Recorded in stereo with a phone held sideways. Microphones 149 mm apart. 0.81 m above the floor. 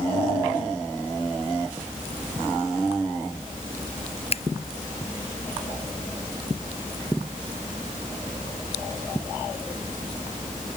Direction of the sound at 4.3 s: 45° left (ahead or behind).